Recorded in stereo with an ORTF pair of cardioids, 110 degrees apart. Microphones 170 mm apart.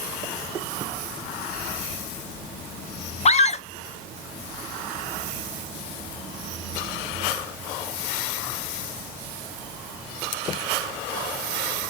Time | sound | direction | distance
3.2 | a scream | 40° left | 0.8 m